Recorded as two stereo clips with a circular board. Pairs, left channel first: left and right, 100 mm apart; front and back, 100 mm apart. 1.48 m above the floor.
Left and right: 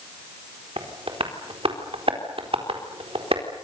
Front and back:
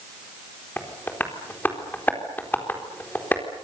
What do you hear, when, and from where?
0.8 s tapping: 70° right, 4 m